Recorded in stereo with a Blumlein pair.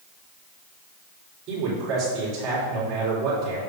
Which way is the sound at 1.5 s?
35° right.